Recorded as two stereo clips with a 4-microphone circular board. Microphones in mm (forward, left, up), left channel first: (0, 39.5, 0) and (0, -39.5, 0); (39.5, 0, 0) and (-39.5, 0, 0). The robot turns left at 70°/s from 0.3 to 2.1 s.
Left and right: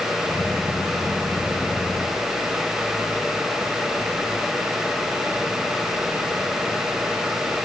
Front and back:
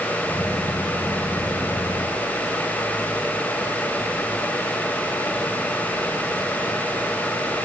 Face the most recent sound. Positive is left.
No sound to turn to.